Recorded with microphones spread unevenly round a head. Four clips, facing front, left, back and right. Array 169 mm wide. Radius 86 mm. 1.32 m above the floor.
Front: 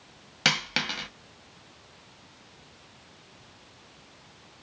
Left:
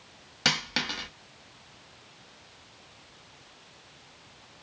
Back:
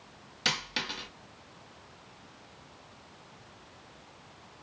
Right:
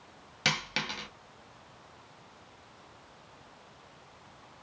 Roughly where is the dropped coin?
Ahead left.